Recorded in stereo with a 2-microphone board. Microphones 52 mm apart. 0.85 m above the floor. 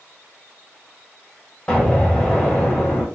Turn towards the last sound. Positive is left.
turn(degrees=20)  # may be behind; listen again after turning